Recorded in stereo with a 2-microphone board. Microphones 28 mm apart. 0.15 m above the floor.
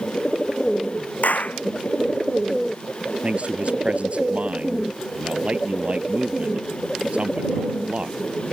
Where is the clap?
80° left.